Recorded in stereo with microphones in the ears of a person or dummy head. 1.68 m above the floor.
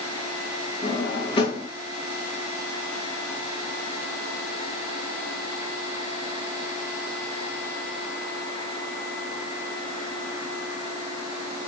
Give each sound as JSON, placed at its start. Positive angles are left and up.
{"t": 0.8, "sound": "a drawer", "side_deg": 25, "distance_m": 1.5}